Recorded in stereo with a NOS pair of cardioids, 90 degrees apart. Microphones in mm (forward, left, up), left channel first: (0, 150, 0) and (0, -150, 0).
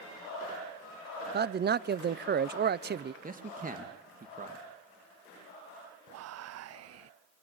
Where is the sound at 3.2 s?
30° right, 3 m.